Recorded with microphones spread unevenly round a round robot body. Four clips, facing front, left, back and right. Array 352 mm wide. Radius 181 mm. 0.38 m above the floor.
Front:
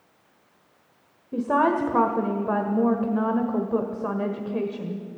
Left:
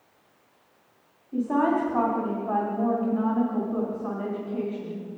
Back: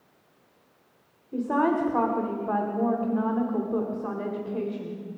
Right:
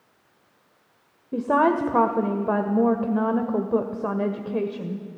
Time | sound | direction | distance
1.3 | a woman speaking | 70° right | 1.8 m